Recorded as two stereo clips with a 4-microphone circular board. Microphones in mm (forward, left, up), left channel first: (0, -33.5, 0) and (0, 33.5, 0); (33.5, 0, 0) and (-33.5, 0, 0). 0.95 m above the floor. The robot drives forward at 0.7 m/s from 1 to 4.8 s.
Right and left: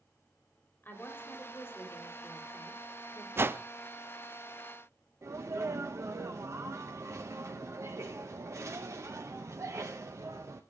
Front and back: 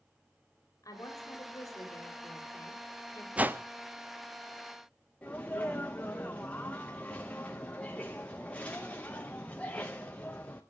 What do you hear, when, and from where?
0.8 s a woman speaking: 30° right, 3.5 m; by 3.3 s 50° right, 2 m
3.4 s a whoosh: 120° left, 0.5 m; by 3.6 s 140° left, 0.6 m
5.2 s a sneeze: 65° left, 0.8 m